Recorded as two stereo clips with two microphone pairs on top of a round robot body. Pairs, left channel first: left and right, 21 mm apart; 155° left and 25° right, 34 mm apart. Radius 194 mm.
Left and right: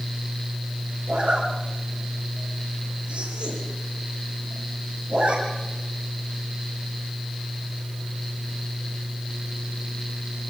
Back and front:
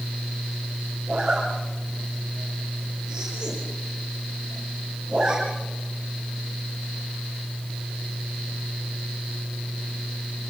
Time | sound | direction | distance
1.1 | a zipper | 90° right | 8 m